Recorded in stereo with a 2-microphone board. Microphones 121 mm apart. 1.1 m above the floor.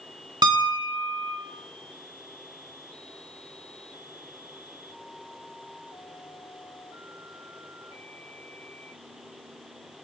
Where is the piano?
40° right (ahead or behind), 2 m.